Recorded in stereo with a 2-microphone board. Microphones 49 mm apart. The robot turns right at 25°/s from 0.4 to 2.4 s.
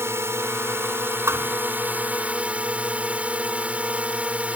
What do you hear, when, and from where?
0.0 s a drone: 80° right; by 4.6 s 30° right
1.3 s a thud: 65° right (ahead or behind); by 1.6 s 60° right (ahead or behind)